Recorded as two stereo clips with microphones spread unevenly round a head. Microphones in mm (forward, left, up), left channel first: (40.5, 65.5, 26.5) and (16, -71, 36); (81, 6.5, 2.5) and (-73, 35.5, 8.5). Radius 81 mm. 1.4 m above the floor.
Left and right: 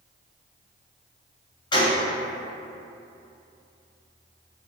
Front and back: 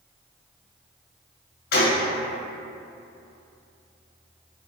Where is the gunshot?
20° left, 0.7 m.